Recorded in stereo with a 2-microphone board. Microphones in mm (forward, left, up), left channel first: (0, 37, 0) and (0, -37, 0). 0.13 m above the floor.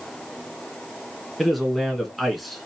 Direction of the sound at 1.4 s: Centre (ahead or behind).